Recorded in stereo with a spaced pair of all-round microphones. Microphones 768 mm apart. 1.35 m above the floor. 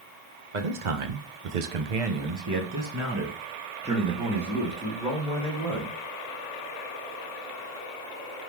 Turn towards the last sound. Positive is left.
turn(degrees=5)  # may be behind; listen again after turning